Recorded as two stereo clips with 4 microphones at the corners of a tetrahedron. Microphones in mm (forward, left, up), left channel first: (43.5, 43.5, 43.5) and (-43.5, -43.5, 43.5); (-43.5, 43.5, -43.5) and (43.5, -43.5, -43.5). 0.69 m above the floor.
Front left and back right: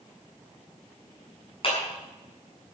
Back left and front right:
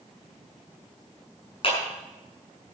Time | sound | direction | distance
1.6 | a clap | 90° left | 6.5 m